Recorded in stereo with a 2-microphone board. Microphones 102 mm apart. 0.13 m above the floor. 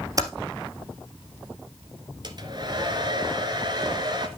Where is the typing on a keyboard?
35° right (ahead or behind), 1.5 m.